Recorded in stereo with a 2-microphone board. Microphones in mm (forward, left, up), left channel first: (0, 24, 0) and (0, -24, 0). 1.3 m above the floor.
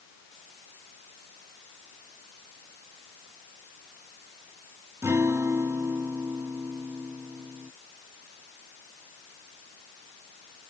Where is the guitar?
85° right.